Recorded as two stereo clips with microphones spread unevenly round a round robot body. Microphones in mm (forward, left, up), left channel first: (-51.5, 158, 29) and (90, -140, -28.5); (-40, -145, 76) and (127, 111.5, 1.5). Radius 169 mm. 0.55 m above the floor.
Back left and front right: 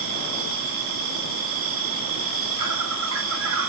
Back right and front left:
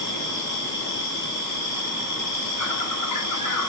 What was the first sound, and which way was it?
An insect, 90° right.